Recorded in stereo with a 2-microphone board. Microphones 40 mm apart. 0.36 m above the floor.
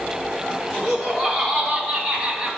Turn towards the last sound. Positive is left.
turn(degrees=-20)  # may be behind; listen again after turning